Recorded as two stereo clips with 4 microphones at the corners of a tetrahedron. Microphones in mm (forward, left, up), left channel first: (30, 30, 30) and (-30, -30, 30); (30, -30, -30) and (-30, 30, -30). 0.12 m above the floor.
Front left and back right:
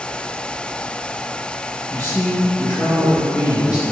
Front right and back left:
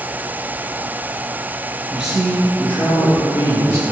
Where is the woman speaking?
65° left, 1.2 m; by 3.8 s 10° left, 2 m.